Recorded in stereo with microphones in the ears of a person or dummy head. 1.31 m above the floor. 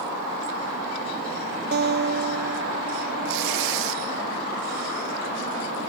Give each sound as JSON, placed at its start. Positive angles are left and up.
{"t": 1.7, "sound": "a guitar", "side_deg": -45}
{"t": 3.2, "sound": "tearing paper", "side_deg": -60}